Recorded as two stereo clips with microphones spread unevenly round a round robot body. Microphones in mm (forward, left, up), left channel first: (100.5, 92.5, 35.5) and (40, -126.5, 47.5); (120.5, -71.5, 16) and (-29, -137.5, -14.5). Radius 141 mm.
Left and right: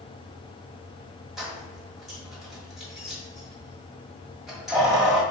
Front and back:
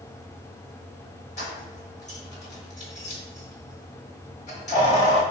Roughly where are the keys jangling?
Ahead.